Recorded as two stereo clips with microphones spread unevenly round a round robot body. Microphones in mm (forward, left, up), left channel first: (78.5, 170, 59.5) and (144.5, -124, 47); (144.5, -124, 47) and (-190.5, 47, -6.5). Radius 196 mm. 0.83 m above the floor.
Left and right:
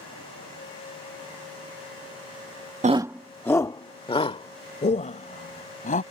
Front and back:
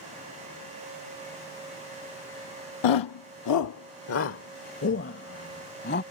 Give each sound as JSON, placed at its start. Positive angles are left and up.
{"t": 2.8, "sound": "a shout", "azimuth_deg": -10}